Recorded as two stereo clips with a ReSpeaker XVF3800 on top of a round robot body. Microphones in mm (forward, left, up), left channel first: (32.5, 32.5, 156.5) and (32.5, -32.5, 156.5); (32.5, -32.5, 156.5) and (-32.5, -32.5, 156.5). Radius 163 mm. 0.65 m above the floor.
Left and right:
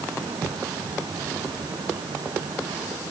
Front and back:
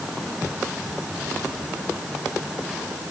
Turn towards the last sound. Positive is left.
No sound to turn to.